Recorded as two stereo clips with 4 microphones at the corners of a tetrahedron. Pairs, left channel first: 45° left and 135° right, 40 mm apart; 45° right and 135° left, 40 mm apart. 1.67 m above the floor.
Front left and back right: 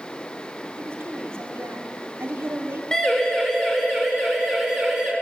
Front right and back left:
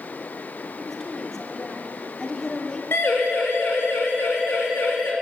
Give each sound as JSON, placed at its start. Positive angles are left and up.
{"t": 0.8, "sound": "a woman speaking", "azimuth_deg": -125, "distance_m": 4.5}
{"t": 2.9, "sound": "a siren", "azimuth_deg": -30, "distance_m": 8.0}